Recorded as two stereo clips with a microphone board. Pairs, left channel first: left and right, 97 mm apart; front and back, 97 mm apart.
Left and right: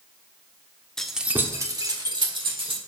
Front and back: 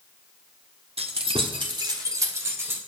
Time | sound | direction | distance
1.0 | keys jangling | 175° left | 1.1 m